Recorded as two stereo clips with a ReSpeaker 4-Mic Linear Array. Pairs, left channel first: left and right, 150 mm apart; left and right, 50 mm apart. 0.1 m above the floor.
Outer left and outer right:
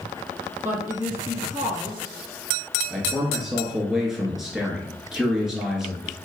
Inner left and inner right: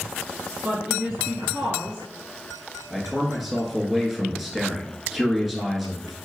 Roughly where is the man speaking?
Centre.